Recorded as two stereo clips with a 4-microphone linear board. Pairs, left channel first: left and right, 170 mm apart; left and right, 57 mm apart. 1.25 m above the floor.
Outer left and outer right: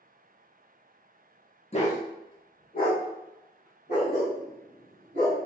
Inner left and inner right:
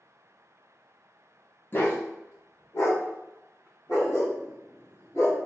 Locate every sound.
1.7 s a dog barking: 35° left (ahead or behind), 0.9 m; by 5.4 s 75° left (ahead or behind), 3 m